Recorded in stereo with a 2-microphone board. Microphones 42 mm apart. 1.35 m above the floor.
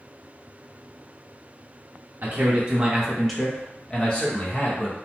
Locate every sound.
2.2 s a man speaking: 45° right (ahead or behind), 0.7 m; by 5.0 s 40° left (ahead or behind), 1.4 m